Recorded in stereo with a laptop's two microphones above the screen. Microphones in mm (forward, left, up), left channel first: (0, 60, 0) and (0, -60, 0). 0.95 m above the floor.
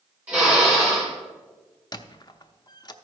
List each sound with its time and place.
0.3 s a drill: 15° right (ahead or behind), 4.5 m
1.9 s a squeak: 35° left (ahead or behind), 0.5 m